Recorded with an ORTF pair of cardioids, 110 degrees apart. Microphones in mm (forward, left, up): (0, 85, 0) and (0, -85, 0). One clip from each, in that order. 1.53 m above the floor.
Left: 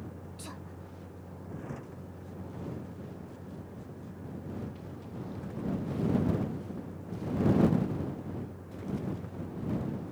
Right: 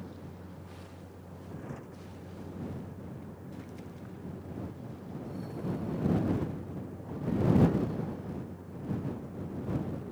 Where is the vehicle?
10° left.